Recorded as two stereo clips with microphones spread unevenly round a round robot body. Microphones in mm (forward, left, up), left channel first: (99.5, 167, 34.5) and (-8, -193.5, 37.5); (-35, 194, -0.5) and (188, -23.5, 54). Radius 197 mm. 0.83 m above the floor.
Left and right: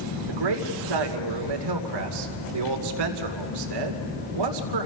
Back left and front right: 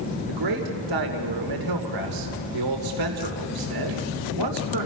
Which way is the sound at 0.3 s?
85° right.